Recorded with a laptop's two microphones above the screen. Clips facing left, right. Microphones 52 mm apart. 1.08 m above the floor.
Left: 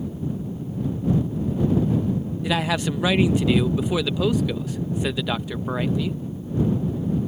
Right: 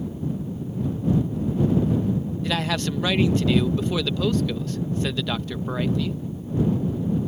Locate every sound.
2.4 s a man speaking: 10° left (ahead or behind)